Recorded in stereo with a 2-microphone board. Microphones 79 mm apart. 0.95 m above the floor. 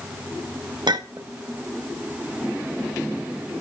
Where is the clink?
75° right (ahead or behind), 0.8 m.